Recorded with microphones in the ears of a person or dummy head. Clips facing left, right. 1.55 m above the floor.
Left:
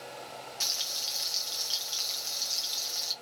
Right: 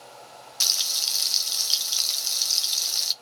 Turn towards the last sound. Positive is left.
turn(degrees=-65)  # may be behind; listen again after turning